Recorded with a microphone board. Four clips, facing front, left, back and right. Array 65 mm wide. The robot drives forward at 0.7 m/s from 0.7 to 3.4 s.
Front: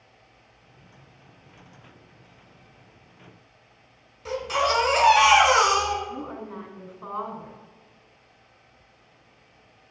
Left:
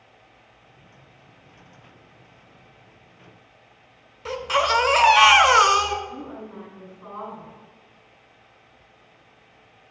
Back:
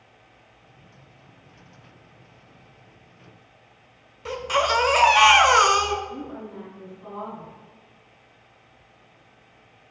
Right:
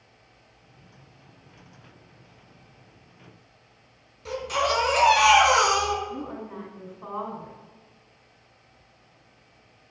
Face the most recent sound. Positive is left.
turn(degrees=-40)